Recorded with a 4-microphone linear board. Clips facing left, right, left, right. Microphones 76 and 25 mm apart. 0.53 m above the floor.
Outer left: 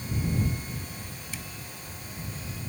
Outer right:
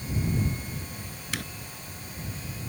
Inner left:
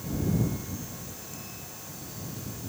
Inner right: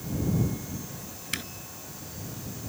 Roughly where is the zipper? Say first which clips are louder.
Outer right 8 dB, inner right 16 dB; right.